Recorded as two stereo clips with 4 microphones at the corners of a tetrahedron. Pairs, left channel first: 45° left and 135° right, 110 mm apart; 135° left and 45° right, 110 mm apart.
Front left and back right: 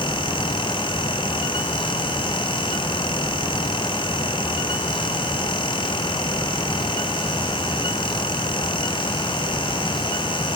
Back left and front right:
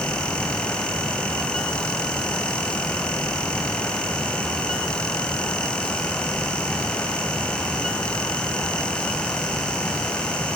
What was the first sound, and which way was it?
Only background noise.